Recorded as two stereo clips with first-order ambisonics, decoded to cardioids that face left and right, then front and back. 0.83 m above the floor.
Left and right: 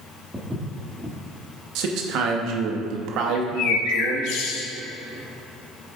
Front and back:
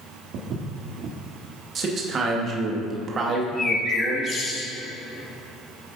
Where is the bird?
65° left, 0.7 m.